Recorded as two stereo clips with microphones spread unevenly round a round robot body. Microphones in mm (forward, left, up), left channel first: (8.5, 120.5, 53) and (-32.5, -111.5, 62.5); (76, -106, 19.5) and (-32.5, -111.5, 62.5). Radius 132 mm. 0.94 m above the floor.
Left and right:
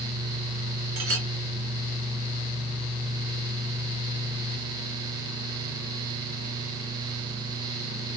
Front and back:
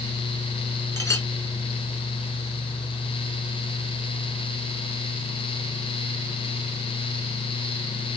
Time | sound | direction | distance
1.0 | a clink | 60° right | 1.6 m